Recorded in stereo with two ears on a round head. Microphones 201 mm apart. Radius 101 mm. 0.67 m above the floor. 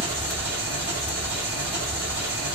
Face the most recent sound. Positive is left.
turn(degrees=-50)  # may be behind; listen again after turning